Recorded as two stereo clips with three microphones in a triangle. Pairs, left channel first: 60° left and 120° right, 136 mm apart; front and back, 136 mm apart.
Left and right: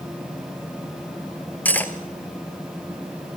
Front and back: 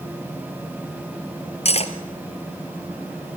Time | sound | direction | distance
1.6 | cutlery clinking | 15° right | 1.3 m